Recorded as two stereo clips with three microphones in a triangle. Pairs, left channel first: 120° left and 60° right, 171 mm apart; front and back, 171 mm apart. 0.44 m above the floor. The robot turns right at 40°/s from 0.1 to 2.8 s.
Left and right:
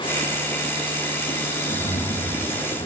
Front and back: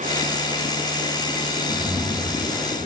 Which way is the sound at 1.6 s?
100° left.